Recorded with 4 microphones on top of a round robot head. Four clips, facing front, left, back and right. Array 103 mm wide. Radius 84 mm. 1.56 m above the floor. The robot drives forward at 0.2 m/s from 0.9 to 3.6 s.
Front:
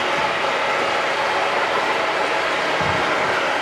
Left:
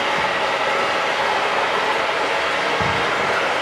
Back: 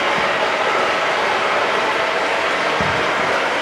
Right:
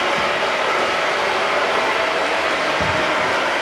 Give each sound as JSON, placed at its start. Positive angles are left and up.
{"t": 0.0, "sound": "running water", "azimuth_deg": -170, "distance_m": 1.5}